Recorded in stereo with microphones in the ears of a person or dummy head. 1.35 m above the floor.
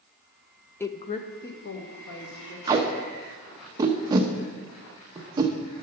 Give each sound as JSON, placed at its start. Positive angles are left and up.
{"t": 0.8, "sound": "a woman speaking", "side_deg": 10, "distance_m": 0.6}
{"t": 2.7, "sound": "tape being pulled", "side_deg": -25, "distance_m": 0.9}